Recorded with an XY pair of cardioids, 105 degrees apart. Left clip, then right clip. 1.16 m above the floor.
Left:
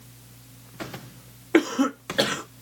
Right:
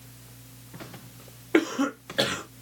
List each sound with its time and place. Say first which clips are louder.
1.5 s a cough: left 3 dB; 20° left, 0.7 m